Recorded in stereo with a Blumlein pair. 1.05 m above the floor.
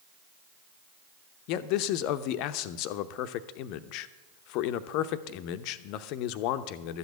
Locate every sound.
1.5 s a man speaking: 40° left, 0.8 m